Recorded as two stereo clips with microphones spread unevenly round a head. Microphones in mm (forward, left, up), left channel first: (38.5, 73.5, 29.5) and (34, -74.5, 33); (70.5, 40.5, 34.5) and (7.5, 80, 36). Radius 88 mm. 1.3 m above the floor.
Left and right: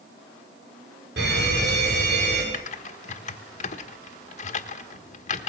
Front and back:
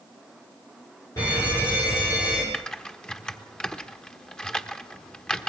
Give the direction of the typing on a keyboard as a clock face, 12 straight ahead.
10 o'clock.